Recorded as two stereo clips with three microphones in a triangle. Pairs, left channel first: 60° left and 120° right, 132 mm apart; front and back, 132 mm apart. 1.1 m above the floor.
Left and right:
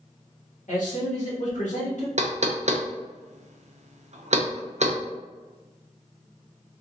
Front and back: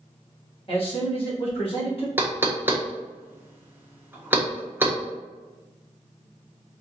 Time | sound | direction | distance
0.7 | a man speaking | 45° left | 1.8 m
2.2 | knocking | 110° right | 0.5 m